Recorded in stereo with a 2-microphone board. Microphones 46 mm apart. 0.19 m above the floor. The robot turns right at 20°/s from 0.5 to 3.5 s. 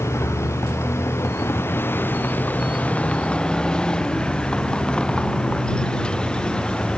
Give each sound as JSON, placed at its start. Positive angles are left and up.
{"t": 0.0, "sound": "a vehicle", "azimuth_deg": 105}